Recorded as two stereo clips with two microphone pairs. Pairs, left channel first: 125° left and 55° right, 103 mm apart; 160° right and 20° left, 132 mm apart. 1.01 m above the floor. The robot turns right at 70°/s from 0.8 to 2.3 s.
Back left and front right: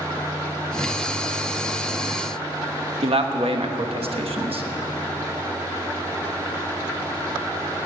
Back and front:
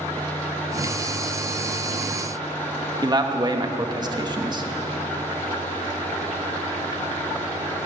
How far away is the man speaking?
About 1.1 m.